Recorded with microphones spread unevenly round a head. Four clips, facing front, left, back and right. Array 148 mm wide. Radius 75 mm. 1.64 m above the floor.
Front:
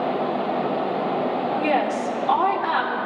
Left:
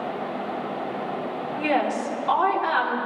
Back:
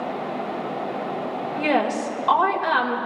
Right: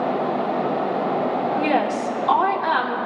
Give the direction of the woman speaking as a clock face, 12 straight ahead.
5 o'clock.